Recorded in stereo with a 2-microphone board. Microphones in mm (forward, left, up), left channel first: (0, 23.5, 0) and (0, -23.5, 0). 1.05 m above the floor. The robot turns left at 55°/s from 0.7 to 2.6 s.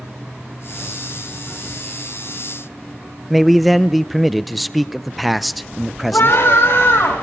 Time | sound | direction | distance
3.3 | a man speaking | 5° left (ahead or behind) | 0.6 m
6.1 | a scream | 65° left (ahead or behind) | 7 m